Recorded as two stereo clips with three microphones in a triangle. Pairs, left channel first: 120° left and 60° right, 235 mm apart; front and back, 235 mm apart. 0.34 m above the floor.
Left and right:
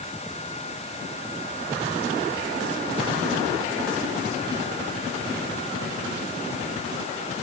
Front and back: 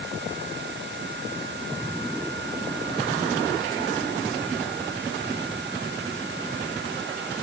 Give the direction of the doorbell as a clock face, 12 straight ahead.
No doorbell in this recording.